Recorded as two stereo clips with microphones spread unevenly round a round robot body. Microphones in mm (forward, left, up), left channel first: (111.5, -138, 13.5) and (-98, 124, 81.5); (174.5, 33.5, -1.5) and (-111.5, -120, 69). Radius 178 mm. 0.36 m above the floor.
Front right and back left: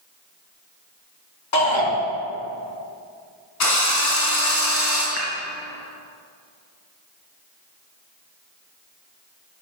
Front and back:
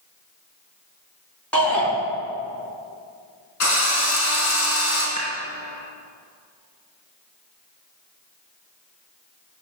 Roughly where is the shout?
Ahead right.